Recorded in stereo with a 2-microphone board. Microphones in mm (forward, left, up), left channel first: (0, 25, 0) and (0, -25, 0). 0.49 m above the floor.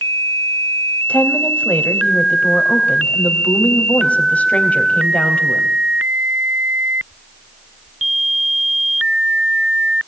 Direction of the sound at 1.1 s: 25° left (ahead or behind).